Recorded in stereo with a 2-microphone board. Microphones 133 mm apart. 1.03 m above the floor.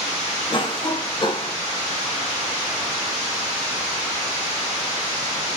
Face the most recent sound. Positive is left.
turn(degrees=40)  # may be behind; listen again after turning